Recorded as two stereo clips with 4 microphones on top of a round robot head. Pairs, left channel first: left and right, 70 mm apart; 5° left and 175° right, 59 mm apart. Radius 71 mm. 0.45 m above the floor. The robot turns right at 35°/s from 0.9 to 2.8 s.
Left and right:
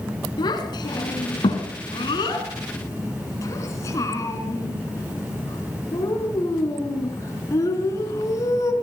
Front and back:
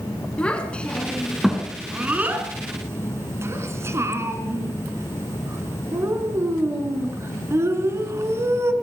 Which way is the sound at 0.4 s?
75° left.